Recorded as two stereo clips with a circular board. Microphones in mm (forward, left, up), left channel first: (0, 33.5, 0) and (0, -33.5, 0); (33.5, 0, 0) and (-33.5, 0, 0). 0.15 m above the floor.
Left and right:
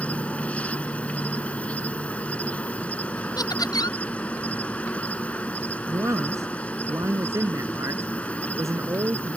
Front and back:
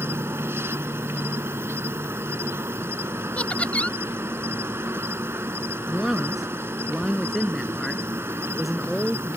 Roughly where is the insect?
Behind left.